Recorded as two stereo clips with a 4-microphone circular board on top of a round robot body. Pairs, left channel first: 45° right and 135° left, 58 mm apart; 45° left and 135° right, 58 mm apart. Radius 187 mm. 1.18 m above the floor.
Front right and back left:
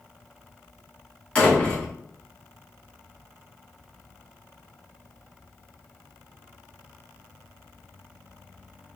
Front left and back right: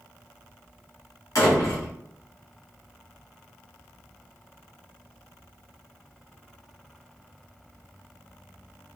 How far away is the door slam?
About 1.3 m.